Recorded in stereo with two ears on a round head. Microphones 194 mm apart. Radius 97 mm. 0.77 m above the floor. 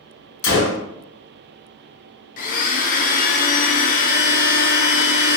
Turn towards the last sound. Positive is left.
turn(degrees=40)  # may be behind; listen again after turning